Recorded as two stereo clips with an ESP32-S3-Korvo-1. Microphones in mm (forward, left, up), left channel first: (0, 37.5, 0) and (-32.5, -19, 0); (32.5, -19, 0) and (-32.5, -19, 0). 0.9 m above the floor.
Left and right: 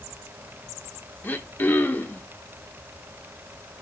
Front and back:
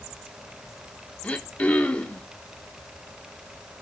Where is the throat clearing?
45° left, 0.9 m.